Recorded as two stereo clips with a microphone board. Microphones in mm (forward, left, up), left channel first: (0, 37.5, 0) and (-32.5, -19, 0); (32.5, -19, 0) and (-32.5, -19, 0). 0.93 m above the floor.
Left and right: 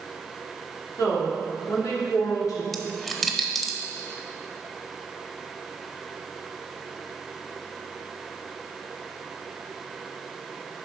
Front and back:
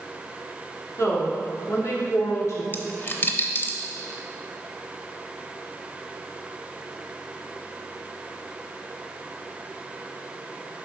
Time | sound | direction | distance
1.0 | a woman speaking | 40° left | 2 m
2.7 | a dropped coin | 30° right | 0.8 m